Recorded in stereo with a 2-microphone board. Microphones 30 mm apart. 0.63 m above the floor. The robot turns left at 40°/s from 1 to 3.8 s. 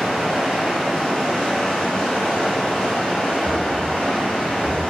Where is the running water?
170° left, 1.2 m; by 4.9 s 60° left, 1.2 m.